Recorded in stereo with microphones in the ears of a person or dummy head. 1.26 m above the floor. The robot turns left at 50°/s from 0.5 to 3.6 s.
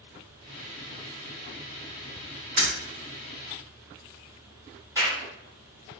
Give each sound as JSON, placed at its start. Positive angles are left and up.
{"t": 2.6, "sound": "breaking glass", "side_deg": -30, "distance_m": 1.0}
{"t": 5.0, "sound": "a clap", "side_deg": -15, "distance_m": 0.9}